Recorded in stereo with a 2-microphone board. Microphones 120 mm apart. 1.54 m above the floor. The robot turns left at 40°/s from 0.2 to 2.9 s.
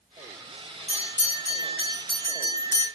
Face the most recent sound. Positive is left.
turn(degrees=20)